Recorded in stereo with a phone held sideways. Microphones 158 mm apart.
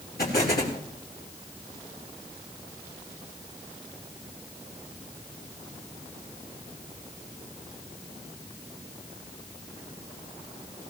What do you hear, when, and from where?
0.2 s an explosion: 75° left (ahead or behind), 4.5 m